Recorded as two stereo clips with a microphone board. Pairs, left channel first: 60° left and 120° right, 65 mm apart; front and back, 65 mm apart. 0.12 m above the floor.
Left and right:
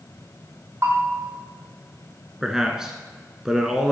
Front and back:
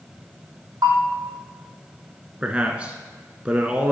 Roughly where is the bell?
Behind.